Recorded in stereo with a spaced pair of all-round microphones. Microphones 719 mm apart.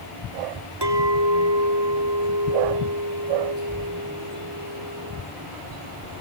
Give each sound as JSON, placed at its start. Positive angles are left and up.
{"t": 0.8, "sound": "a clink", "side_deg": -35, "distance_m": 1.8}